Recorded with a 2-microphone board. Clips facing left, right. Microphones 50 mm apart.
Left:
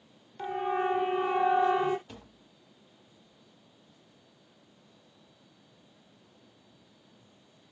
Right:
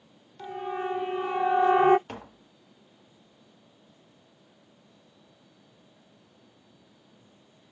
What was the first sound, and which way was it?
A siren, 20° left (ahead or behind).